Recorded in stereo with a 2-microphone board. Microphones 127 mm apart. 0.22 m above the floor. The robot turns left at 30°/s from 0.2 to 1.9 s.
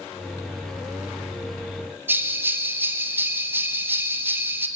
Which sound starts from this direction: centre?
A bell, at 2.1 s.